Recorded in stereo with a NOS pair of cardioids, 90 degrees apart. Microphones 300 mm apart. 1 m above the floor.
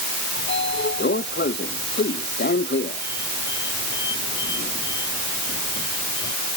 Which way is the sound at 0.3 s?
35° left.